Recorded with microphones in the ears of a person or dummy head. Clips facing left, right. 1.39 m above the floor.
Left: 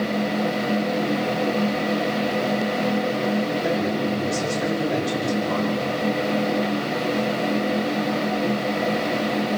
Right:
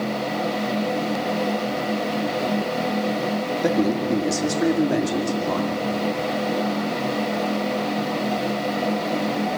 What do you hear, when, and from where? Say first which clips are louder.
3.6 s a man speaking: right 2 dB; 80° right, 2.5 m; by 5.7 s 50° right (ahead or behind), 3 m